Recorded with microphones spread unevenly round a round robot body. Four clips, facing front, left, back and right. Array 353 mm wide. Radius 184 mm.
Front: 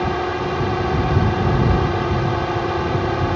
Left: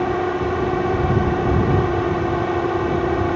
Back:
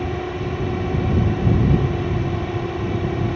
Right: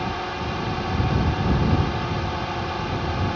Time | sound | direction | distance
0.0 | a drone | 75° left | ?